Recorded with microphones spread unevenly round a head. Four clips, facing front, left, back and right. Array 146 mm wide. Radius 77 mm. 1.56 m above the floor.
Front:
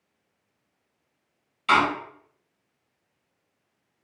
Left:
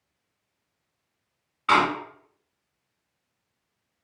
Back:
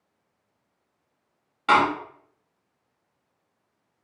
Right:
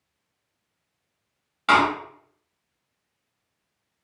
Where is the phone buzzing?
No phone buzzing in this recording.